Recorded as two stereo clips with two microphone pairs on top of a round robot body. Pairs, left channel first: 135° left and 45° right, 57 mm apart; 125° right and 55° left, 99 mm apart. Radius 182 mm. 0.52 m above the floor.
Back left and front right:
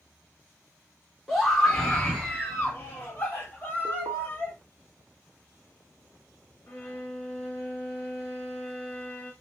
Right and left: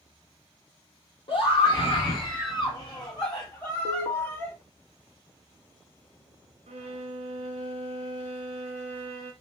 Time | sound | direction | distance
1.3 | a scream | 140° right | 2 m
3.9 | an alarm | 100° right | 1.3 m
6.7 | a violin | 65° left | 0.5 m